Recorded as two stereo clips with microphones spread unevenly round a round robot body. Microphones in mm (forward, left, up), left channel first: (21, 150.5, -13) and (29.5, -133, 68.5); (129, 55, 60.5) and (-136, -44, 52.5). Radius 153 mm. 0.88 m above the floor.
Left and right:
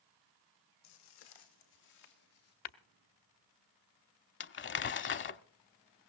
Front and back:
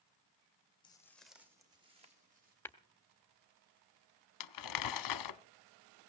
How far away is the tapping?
About 1.1 m.